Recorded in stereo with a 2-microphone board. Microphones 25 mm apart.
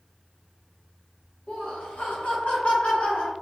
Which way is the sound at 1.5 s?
60° left (ahead or behind).